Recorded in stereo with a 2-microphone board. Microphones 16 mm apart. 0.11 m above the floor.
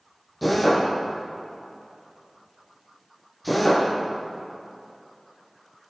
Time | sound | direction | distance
0.4 | a drill | centre (ahead or behind) | 4.5 m